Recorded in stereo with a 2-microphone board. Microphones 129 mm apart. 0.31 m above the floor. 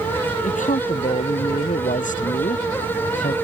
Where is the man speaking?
80° left.